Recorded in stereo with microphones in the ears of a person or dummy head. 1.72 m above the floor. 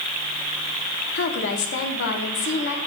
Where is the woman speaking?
65° left (ahead or behind), 1.1 m.